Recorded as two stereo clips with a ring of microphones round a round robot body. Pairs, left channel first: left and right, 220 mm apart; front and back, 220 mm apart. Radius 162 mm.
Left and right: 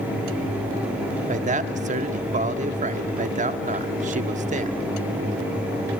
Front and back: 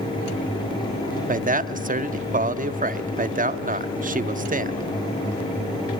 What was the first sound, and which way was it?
A man speaking, 140° right.